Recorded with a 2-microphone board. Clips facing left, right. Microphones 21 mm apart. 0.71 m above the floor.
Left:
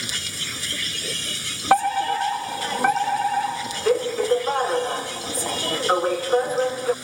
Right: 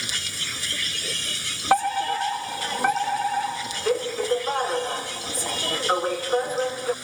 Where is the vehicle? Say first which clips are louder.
Even; 5° right (ahead or behind).